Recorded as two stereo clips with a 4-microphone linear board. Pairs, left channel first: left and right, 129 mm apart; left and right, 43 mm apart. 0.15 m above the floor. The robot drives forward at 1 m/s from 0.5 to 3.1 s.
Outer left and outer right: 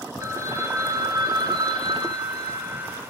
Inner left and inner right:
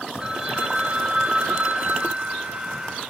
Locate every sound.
0.2 s a phone ringing: 25° right (ahead or behind), 1.9 m; by 3.0 s 30° right (ahead or behind), 1.6 m